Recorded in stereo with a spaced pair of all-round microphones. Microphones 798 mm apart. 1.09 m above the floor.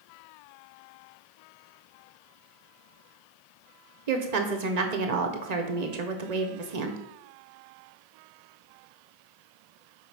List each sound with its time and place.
4.1 s a woman speaking: 55° right (ahead or behind), 0.9 m